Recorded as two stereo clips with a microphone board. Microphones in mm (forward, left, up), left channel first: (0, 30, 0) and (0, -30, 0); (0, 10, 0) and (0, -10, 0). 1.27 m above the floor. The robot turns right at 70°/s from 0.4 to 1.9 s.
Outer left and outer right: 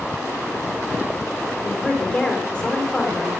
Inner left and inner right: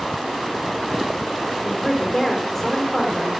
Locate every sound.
1.6 s a woman speaking: 40° left (ahead or behind), 3.5 m; by 3.3 s 20° left (ahead or behind), 3.5 m